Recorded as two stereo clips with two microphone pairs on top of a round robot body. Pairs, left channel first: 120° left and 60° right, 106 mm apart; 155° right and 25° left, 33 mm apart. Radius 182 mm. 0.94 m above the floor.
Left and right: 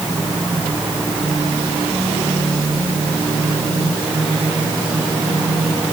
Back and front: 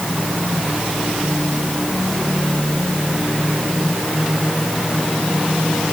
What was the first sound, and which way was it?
Only background noise.